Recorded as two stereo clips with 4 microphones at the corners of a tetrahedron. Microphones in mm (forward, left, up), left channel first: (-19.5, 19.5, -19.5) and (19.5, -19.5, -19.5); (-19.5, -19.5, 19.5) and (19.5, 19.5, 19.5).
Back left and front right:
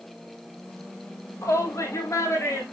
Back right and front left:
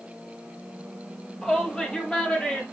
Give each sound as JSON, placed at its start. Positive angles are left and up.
{"t": 1.4, "sound": "a shout", "azimuth_deg": 155, "distance_m": 3.5}